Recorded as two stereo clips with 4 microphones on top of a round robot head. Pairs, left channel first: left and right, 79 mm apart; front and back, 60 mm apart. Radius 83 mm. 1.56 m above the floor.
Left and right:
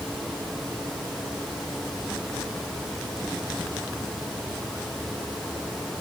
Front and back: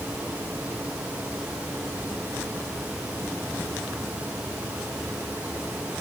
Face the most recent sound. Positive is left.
No sound to turn to.